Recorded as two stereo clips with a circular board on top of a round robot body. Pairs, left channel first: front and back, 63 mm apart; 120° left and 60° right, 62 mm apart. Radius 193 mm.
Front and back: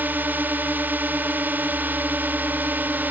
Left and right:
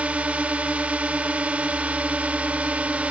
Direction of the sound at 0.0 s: 125° right.